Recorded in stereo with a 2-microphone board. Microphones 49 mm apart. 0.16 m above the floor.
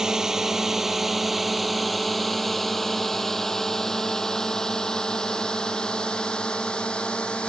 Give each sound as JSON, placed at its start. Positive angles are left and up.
{"t": 0.0, "sound": "a drone", "side_deg": -10}